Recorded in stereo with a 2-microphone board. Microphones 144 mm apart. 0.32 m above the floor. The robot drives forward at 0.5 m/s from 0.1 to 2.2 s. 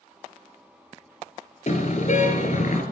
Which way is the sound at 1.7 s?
50° left (ahead or behind).